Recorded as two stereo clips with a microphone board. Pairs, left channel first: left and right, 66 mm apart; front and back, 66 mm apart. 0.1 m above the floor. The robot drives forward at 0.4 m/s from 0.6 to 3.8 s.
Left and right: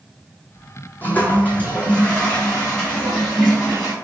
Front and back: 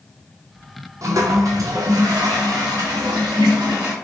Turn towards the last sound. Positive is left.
turn(degrees=170)